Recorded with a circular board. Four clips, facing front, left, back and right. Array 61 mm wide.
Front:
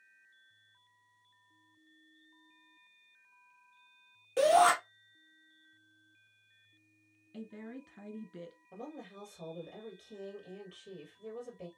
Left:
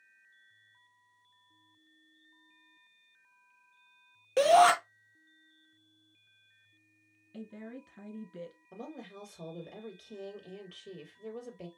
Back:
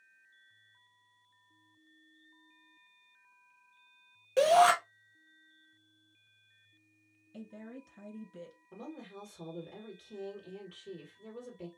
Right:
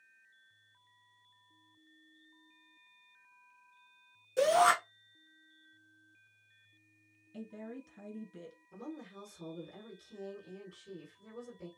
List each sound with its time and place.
4.4 s a shout: 110° left, 2.5 m
7.3 s a woman speaking: 40° left, 1.5 m
8.7 s a woman speaking: 100° left, 2.5 m